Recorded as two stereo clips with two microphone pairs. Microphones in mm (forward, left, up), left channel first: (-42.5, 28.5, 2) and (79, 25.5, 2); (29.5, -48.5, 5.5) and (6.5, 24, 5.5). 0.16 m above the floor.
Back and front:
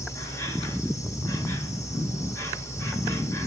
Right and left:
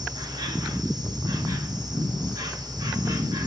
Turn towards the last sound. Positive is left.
turn(degrees=115)